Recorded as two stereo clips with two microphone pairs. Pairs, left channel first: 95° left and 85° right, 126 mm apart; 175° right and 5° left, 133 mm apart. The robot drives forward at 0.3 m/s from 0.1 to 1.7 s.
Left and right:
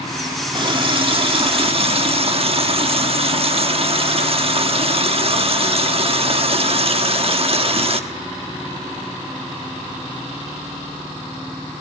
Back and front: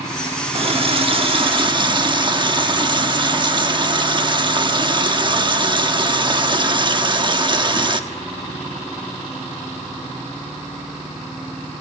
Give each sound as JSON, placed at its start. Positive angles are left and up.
{"t": 0.5, "sound": "a running tap", "azimuth_deg": -35, "distance_m": 1.5}